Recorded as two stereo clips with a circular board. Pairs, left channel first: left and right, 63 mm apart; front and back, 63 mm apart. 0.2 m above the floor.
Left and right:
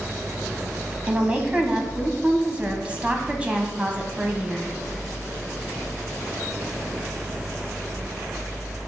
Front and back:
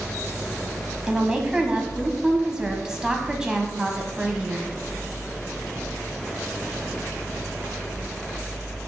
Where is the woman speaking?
120° right, 1.0 m.